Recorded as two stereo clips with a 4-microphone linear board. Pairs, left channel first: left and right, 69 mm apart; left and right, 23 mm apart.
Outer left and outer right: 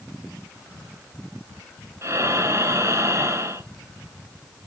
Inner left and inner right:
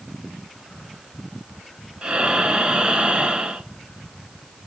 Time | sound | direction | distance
2.0 | breathing | 45° right (ahead or behind) | 1.3 m